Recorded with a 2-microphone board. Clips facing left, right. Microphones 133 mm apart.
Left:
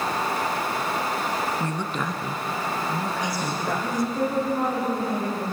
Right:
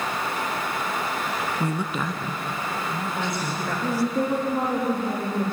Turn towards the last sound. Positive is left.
turn(degrees=-25)  # may be behind; listen again after turning